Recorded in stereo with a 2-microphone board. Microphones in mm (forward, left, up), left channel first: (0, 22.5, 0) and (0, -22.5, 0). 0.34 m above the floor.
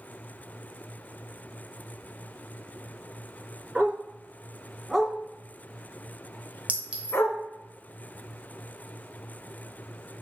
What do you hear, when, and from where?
3.8 s a dog barking: 30° right (ahead or behind), 1.2 m; by 7.4 s 85° left, 1.0 m
6.7 s a clink: 30° right (ahead or behind), 1.0 m